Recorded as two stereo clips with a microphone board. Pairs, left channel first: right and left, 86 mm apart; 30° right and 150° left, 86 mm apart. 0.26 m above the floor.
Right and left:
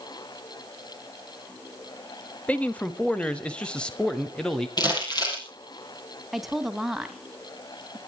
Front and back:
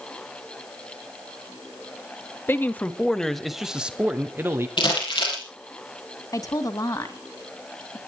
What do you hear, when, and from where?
2.5 s a man speaking: 40° right, 1.1 m; by 4.7 s 170° right, 1.3 m
4.8 s crumpling: 50° right, 5.5 m
6.3 s a woman speaking: 5° left, 1.7 m